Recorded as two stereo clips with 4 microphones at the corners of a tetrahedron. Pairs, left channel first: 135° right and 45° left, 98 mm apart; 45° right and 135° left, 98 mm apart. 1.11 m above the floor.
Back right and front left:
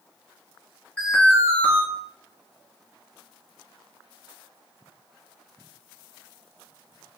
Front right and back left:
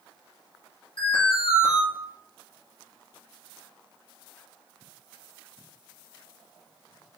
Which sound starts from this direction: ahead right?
An alarm, at 1.0 s.